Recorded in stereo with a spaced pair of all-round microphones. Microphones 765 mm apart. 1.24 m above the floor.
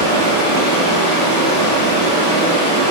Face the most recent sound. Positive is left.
turn(degrees=55)  # may be behind; listen again after turning